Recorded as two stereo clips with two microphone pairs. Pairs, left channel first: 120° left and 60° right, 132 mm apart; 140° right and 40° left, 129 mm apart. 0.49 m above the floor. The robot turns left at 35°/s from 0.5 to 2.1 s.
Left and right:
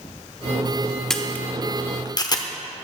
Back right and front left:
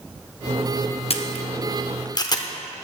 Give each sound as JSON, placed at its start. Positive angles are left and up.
{"t": 1.1, "sound": "a camera shutter", "azimuth_deg": -150, "distance_m": 0.6}